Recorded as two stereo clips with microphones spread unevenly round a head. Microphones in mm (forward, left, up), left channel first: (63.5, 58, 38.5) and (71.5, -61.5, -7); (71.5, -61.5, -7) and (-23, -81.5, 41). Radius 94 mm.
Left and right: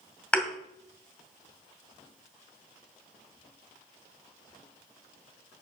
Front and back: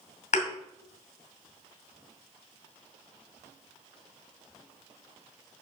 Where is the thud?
20° left, 2 m.